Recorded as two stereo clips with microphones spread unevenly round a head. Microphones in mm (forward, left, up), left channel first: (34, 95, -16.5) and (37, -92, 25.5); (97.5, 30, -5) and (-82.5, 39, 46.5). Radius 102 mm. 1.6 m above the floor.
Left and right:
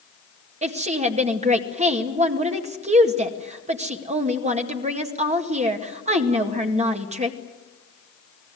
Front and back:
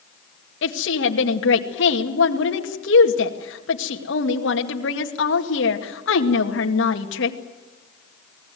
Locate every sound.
0.6 s a woman speaking: 35° right, 2 m